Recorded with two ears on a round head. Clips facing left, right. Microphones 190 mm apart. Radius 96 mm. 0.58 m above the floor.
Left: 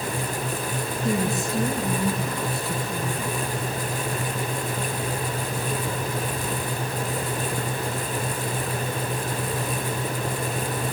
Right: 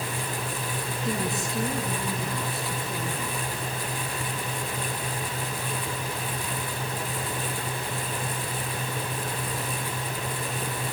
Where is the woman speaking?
80° left, 6.5 m.